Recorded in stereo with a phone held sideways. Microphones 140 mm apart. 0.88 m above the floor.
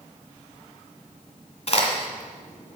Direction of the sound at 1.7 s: 50° left (ahead or behind).